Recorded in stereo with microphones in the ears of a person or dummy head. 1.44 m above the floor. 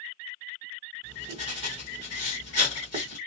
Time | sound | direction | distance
1.0 | writing | 40° right (ahead or behind) | 1.5 m